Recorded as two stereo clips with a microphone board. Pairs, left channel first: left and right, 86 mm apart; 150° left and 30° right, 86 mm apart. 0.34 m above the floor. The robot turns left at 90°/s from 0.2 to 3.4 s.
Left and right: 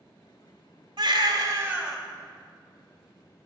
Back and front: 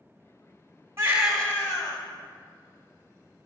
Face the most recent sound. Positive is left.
turn(degrees=55)